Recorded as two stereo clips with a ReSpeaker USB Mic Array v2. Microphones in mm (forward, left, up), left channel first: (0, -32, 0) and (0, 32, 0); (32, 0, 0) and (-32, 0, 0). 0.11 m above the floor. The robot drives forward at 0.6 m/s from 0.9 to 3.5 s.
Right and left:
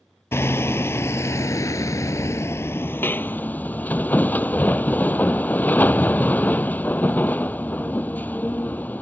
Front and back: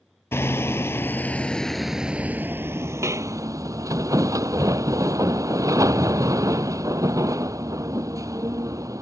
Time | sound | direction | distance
0.3 | hammering | 45° right | ?